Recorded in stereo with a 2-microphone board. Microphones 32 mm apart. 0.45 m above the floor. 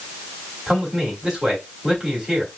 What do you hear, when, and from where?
0.7 s a man speaking: 10° right (ahead or behind), 2.5 m